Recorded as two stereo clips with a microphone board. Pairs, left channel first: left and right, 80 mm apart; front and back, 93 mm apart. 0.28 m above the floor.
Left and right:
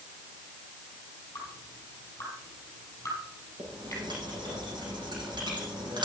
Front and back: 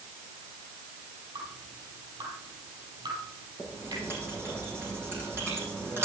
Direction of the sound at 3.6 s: 115° right.